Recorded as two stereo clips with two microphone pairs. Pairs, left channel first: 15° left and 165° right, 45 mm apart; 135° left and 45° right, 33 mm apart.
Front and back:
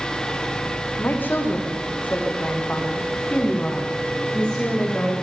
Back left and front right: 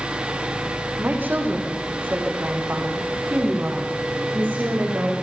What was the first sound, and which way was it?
A woman speaking, 20° right.